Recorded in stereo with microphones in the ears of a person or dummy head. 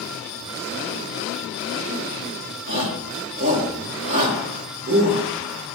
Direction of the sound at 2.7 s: 40° right (ahead or behind).